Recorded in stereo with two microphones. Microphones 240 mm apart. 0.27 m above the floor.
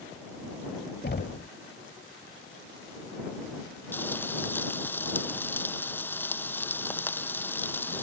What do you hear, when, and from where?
1.0 s knocking: 40° left (ahead or behind)
3.9 s frying: 10° left (ahead or behind)